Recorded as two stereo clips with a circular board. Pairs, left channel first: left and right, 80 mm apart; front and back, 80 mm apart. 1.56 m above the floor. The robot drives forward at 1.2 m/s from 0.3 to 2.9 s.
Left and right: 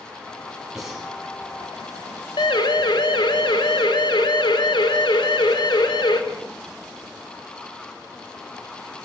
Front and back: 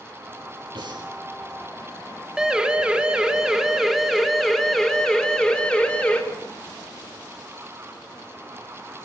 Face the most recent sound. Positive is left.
turn(degrees=75)